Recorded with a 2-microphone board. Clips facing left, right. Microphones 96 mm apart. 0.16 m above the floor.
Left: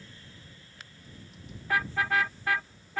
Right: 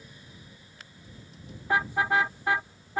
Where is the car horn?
25° right (ahead or behind).